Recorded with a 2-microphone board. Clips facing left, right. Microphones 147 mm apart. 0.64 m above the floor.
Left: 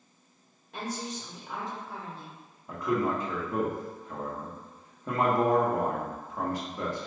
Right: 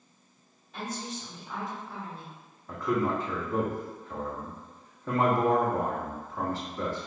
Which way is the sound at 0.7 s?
70° left (ahead or behind).